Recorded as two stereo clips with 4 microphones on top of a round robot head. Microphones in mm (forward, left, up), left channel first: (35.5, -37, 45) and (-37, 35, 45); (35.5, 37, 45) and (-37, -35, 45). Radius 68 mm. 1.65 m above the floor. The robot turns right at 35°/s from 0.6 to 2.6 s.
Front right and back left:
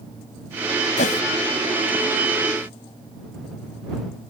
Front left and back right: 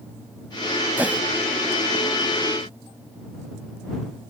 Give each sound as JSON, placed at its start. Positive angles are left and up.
{"t": 1.0, "sound": "a whoosh", "azimuth_deg": -60}